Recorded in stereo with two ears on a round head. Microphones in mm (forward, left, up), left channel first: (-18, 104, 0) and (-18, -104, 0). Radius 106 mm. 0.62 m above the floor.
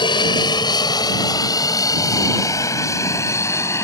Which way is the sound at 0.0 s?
20° left (ahead or behind).